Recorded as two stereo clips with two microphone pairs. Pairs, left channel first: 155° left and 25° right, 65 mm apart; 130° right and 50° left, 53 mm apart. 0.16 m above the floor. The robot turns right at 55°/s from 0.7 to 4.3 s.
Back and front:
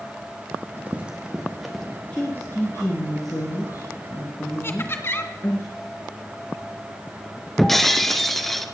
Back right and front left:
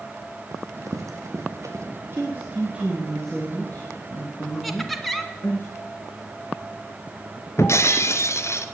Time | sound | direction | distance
0.5 | running footsteps | 45° left | 2.5 m
2.1 | a woman speaking | 85° left | 3 m
4.6 | laughter | 145° left | 2.0 m
7.6 | breaking glass | 115° right | 1.2 m